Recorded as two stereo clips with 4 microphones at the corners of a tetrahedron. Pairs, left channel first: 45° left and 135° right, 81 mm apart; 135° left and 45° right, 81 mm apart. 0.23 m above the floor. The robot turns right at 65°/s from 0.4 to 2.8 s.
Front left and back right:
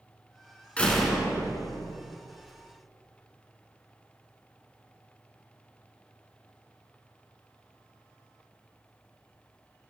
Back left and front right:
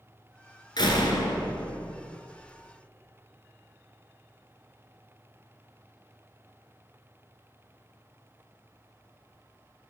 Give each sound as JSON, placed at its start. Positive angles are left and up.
{"t": 0.8, "sound": "a door slam", "azimuth_deg": 120, "distance_m": 1.8}